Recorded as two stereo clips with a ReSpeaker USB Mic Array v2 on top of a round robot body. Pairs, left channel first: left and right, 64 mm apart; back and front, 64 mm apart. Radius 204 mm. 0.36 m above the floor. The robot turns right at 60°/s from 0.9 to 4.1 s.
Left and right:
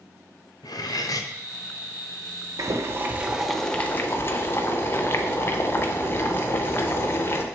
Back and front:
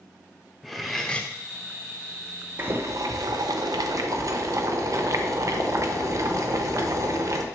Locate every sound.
0.6 s cutlery clinking: 95° left, 0.8 m; by 1.3 s 115° left, 0.8 m
2.6 s boiling: 55° right, 0.8 m; by 7.5 s 35° left, 0.8 m